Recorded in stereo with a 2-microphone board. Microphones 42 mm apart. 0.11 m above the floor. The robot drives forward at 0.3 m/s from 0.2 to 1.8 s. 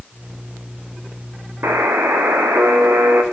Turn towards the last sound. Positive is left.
turn(degrees=-65)  # may be behind; listen again after turning